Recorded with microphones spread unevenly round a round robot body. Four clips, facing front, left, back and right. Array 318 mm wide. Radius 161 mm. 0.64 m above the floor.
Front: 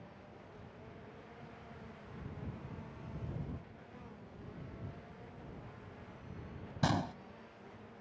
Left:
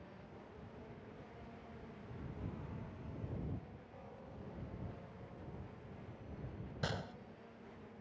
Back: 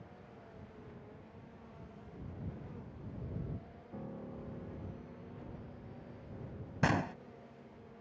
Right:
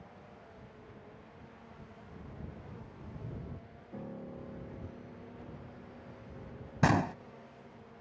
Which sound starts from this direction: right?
A gunshot, at 6.8 s.